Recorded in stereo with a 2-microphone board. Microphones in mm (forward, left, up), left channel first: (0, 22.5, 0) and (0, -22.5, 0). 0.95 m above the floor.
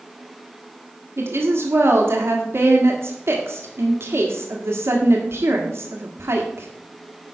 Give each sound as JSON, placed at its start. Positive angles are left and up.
{"t": 1.2, "sound": "a woman speaking", "side_deg": -65, "distance_m": 1.5}